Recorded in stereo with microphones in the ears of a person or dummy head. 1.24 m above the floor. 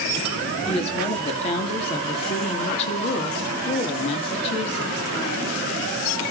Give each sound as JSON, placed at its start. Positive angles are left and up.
{"t": 0.7, "sound": "a woman speaking", "side_deg": 35, "distance_m": 2.0}